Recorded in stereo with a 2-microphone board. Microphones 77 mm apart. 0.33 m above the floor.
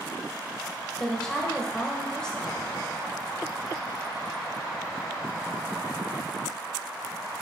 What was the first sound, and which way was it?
A woman speaking, 10° left (ahead or behind).